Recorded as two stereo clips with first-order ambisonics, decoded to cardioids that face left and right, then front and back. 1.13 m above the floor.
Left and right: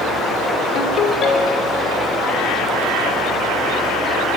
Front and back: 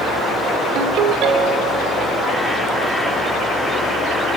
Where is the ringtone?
140° left, 1.9 m.